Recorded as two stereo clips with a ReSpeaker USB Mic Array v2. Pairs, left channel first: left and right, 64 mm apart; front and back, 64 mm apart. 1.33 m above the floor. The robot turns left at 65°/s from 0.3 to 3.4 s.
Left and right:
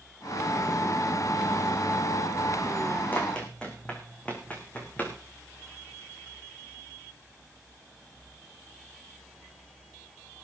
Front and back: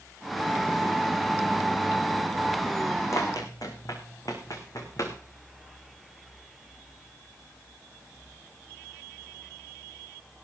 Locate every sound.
3.1 s running footsteps: 30° left, 4 m